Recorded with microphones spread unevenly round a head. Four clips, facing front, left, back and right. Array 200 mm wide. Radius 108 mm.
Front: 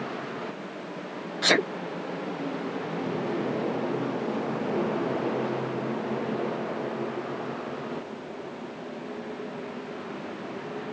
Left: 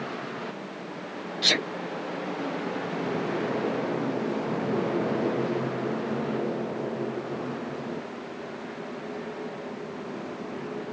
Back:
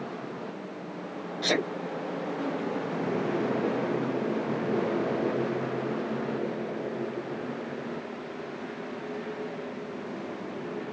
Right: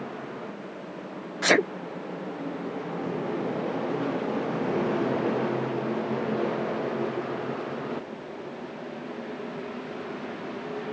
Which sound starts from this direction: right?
A sneeze, at 1.4 s.